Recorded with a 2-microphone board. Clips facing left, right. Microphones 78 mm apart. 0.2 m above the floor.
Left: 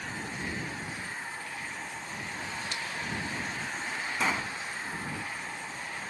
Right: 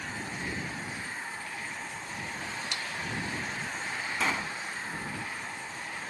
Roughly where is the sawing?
Right.